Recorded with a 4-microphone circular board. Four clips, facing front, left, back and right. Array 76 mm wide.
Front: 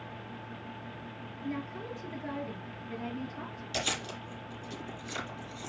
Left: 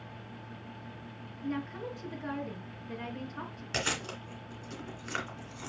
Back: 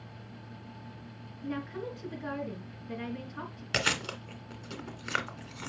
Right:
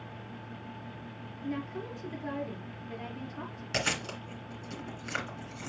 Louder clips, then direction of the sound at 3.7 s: Right 2 dB, back 5 dB; 175° left.